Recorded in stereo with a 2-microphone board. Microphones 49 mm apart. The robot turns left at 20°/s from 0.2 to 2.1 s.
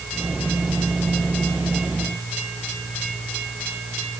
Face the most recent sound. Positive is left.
No sound to turn to.